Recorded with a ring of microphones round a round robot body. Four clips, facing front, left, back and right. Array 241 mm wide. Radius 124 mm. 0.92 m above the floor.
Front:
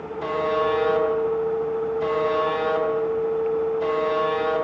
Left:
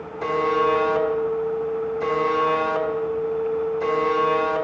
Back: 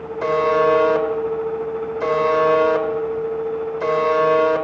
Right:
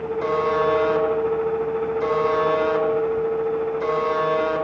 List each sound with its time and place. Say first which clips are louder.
0.2 s a buzzer: left 1 dB, back 6 dB; 175° left, 1.7 m